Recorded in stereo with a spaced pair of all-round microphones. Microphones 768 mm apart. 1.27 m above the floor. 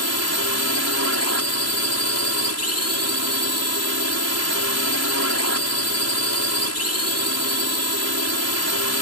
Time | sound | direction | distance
0.0 | a drone | 20° left (ahead or behind) | ?